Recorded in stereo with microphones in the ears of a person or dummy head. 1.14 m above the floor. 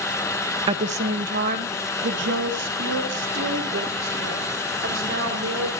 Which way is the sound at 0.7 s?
25° right (ahead or behind).